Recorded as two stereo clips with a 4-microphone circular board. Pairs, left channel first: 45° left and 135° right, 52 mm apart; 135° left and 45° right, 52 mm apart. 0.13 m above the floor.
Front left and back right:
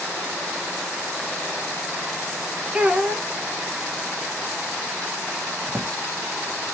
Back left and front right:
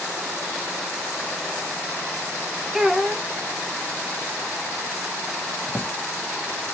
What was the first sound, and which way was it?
A child speaking, 110° right.